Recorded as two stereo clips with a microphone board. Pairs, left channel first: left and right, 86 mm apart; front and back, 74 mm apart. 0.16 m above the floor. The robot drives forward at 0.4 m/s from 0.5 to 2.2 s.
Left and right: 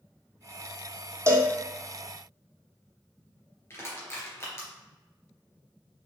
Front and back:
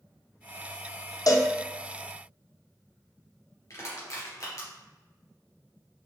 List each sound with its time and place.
1.3 s a cowbell: 35° right, 1.3 m; by 1.5 s 40° right, 1.2 m
3.7 s crushing: 35° left, 3 m